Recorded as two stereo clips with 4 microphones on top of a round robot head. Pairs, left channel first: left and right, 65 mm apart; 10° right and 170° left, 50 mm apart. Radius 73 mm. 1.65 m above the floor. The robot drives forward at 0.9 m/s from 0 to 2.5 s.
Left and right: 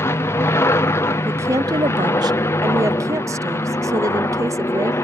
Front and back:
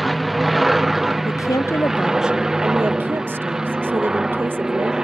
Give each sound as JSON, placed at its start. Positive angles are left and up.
{"t": 0.0, "sound": "an aircraft", "azimuth_deg": 80}
{"t": 1.2, "sound": "a woman speaking", "azimuth_deg": -30}